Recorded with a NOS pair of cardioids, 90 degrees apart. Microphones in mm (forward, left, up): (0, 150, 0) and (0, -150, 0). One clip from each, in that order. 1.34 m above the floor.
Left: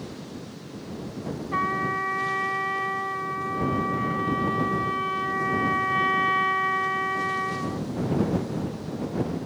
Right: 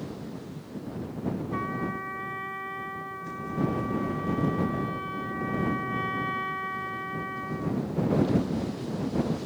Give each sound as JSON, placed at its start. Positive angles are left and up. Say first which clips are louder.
{"t": 1.5, "sound": "a trumpet", "louder": "left 10 dB", "azimuth_deg": 60}